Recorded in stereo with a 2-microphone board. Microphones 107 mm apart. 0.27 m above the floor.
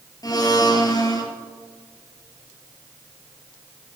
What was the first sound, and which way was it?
A blender, 40° left (ahead or behind).